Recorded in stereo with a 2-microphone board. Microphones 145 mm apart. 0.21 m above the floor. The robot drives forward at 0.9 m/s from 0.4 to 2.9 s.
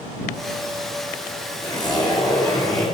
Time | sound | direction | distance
1.6 | a zipper | 30° left (ahead or behind) | 2.5 m